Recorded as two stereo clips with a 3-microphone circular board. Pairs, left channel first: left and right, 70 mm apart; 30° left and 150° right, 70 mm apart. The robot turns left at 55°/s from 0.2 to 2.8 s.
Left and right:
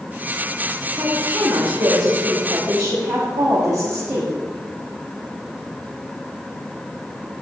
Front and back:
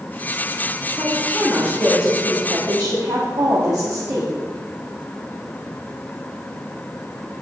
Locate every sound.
1.0 s a woman speaking: 25° right, 1.4 m; by 4.3 s 125° right, 1.4 m